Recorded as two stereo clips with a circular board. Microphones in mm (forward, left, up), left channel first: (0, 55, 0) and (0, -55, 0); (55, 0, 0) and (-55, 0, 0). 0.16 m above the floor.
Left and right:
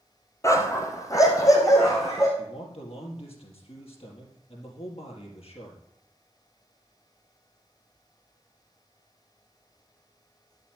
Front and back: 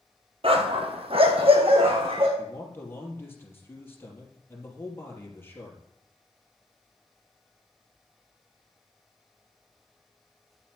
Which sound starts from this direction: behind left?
A dog barking, at 0.4 s.